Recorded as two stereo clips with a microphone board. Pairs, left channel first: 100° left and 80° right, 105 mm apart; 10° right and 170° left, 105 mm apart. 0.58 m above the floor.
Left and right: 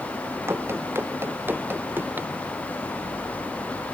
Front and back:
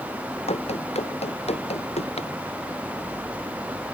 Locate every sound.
0.5 s running footsteps: 10° right; by 2.3 s 5° right